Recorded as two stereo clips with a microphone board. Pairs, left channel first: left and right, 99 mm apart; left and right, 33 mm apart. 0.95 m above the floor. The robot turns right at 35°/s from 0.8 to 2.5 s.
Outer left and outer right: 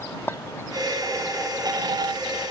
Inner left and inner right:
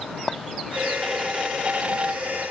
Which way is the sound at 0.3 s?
25° left (ahead or behind).